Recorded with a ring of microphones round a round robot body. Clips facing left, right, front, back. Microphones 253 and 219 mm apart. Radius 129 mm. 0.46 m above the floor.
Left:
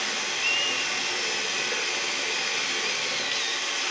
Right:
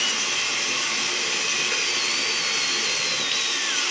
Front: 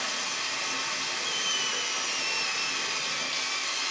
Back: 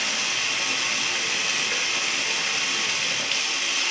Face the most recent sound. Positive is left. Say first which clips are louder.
# right 1 dB, back 4 dB
turn(degrees=-165)